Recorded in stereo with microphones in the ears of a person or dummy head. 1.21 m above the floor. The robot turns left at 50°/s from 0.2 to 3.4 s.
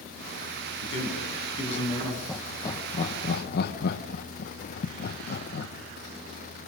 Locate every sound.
0.8 s a man speaking: 90° left, 8.5 m; by 2.2 s 20° left, 8.5 m
2.3 s laughter: centre (ahead or behind), 1.2 m; by 5.7 s 50° left (ahead or behind), 1.2 m